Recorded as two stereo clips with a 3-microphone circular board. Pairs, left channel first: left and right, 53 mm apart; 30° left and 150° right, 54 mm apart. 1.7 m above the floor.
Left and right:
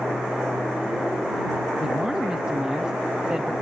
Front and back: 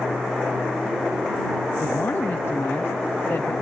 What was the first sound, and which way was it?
A man speaking, 15° right.